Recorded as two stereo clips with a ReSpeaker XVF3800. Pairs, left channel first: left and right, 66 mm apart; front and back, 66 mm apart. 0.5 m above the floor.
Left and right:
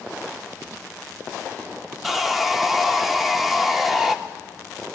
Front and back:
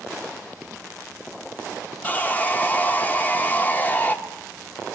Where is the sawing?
5° right, 0.8 m.